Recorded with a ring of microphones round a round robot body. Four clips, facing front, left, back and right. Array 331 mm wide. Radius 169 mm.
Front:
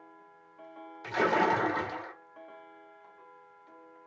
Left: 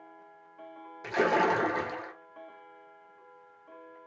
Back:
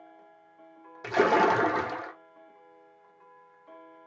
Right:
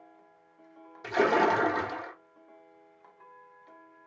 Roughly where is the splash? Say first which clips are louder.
Right 2 dB, back 4 dB; behind.